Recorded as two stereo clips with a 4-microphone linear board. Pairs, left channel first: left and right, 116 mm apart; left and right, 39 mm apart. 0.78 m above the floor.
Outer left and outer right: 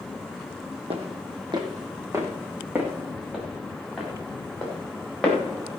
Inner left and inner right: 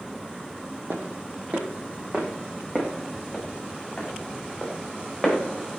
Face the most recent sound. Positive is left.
turn(degrees=5)  # may be behind; listen again after turning